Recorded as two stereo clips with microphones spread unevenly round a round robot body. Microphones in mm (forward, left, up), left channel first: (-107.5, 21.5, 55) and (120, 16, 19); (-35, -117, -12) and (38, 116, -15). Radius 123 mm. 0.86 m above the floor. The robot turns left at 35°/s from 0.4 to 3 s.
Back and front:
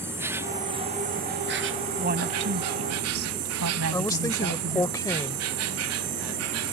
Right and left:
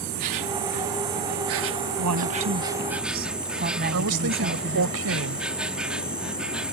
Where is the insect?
75° left; by 6.7 s 15° right.